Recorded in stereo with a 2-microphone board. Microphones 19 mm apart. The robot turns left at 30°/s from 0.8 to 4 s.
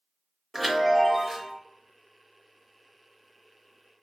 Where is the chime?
Centre (ahead or behind), 0.7 m; by 1.5 s 25° right (ahead or behind), 0.7 m.